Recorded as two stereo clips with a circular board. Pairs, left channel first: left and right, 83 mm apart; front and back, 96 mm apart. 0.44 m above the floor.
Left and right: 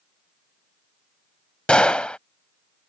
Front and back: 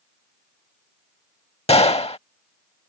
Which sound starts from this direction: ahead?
A gunshot, at 1.7 s.